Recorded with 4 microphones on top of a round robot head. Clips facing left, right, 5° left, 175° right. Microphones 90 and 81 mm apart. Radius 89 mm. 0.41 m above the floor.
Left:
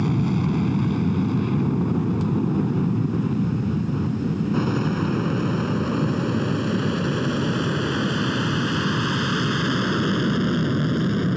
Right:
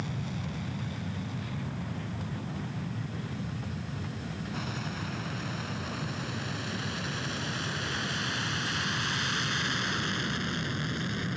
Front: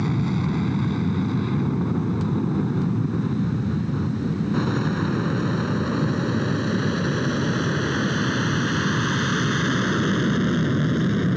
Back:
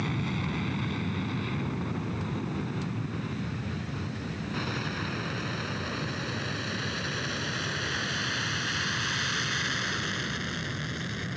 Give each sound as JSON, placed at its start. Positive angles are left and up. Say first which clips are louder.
{"t": 0.0, "sound": "an aircraft", "louder": "left 14 dB, front 8 dB", "azimuth_deg": 75}